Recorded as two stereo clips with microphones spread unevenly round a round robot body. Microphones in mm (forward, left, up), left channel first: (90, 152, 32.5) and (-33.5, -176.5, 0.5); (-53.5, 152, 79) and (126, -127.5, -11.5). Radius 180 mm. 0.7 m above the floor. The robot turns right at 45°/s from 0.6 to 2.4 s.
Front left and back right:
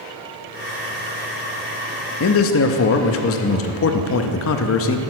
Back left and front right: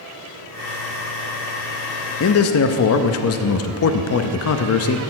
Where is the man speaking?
75° left, 0.6 m; by 5.0 s 85° left, 0.6 m.